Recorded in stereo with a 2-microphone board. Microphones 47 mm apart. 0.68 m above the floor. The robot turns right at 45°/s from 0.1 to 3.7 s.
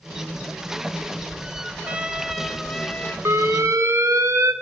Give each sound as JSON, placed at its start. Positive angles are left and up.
{"t": 1.8, "sound": "a trumpet", "azimuth_deg": -30, "distance_m": 0.7}
{"t": 3.2, "sound": "an alarm", "side_deg": -70, "distance_m": 0.8}